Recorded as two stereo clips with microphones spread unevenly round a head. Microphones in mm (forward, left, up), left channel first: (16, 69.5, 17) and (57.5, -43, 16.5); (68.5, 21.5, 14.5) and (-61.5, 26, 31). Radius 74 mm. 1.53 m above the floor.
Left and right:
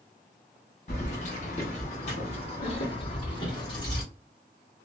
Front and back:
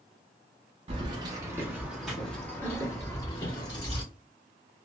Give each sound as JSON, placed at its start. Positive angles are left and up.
{"t": 0.9, "sound": "keys jangling", "azimuth_deg": 145, "distance_m": 0.9}